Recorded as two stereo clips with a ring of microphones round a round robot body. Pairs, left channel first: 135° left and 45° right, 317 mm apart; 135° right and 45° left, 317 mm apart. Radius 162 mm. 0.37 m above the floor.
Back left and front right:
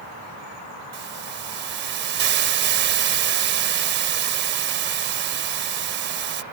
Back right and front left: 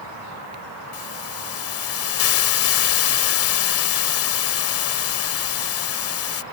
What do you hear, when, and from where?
0.9 s a hiss: 95° right